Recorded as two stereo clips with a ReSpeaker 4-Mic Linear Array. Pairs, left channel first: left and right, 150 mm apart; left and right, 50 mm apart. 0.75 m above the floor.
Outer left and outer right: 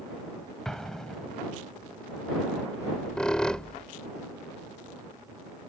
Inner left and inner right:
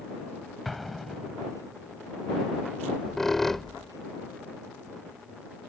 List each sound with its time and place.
0.7 s an explosion: 5° left (ahead or behind)
2.8 s a squeak: 5° left (ahead or behind)